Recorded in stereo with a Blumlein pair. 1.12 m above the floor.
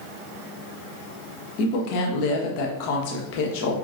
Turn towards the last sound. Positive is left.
turn(degrees=45)